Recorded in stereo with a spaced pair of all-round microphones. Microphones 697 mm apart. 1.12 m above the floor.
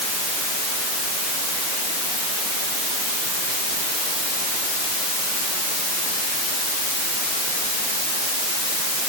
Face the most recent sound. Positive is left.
No sound to turn to.